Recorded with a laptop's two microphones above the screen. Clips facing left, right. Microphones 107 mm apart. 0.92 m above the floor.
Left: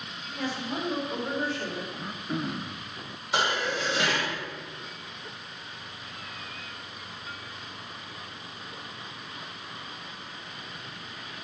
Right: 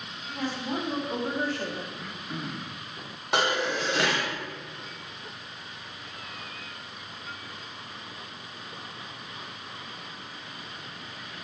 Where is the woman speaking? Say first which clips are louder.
Right 1 dB; 65° right (ahead or behind), 3.5 m; by 1.8 s 50° right (ahead or behind), 1.8 m.